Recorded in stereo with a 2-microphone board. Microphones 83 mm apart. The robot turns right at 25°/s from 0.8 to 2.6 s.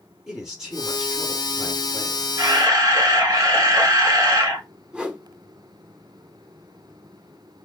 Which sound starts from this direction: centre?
A whoosh, at 4.9 s.